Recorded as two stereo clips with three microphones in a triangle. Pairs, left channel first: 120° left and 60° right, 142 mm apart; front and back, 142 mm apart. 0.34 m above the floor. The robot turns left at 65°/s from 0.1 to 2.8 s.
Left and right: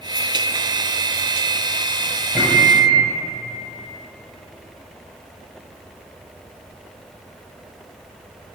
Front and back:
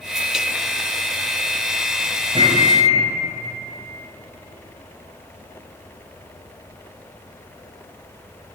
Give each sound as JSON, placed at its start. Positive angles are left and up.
{"t": 2.4, "sound": "a microwave", "azimuth_deg": -145, "distance_m": 1.4}